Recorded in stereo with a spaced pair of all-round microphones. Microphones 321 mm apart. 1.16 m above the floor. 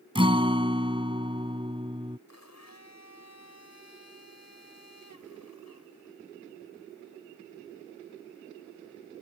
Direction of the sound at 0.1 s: 15° right (ahead or behind).